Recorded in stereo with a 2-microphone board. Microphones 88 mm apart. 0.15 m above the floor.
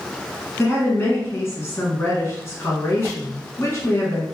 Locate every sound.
0.6 s a woman speaking: 35° left (ahead or behind), 1.4 m